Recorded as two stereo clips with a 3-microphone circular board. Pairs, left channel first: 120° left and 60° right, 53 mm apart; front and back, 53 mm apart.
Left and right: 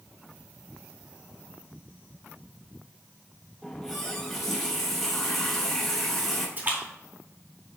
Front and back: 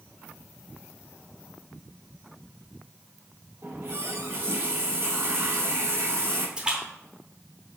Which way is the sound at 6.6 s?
110° right.